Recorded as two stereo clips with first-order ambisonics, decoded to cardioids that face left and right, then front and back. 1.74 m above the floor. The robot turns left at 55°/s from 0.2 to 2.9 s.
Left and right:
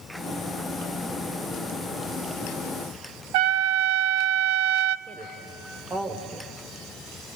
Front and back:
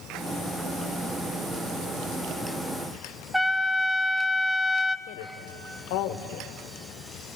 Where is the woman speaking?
15° right, 1.4 m.